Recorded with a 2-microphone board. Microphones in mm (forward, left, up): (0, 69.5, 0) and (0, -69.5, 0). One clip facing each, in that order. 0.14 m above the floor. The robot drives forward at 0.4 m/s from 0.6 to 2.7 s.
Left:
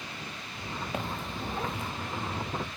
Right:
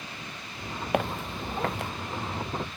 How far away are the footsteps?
About 1.0 m.